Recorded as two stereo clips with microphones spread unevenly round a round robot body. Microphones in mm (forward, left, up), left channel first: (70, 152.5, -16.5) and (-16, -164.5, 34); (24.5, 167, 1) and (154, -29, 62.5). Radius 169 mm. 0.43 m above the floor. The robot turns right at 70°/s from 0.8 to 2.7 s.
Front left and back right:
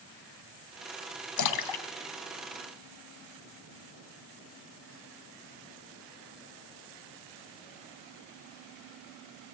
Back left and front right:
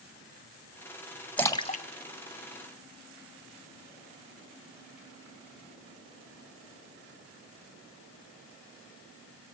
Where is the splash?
45° left, 2.5 m; by 3.2 s 135° left, 2.5 m.